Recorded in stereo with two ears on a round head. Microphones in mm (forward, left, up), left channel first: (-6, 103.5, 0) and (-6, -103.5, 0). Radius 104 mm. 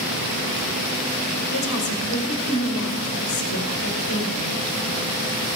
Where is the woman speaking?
65° left (ahead or behind), 2 m.